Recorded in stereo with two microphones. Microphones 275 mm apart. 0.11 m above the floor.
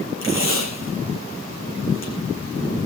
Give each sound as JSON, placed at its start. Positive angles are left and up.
{"t": 0.2, "sound": "tape being pulled", "side_deg": 50, "distance_m": 8.5}